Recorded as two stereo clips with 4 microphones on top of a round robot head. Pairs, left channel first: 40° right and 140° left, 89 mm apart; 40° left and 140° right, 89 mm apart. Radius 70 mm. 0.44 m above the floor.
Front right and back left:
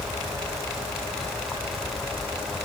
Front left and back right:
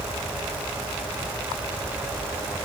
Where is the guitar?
I don't hear a guitar.